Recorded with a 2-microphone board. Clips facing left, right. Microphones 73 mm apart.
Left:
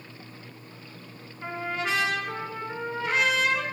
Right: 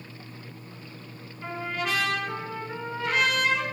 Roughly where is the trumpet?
Left.